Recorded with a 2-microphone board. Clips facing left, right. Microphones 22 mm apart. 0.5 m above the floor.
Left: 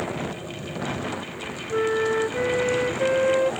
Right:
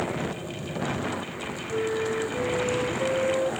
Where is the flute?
70° left (ahead or behind), 0.7 m.